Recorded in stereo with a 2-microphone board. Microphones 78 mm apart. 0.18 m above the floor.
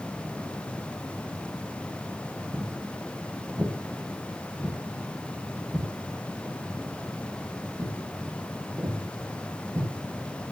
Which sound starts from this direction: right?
Footsteps, at 2.5 s.